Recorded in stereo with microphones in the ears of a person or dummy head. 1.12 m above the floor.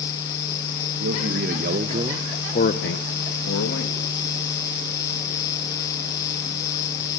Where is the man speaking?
65° right (ahead or behind), 1.8 m; by 4.2 s 80° left, 2.5 m.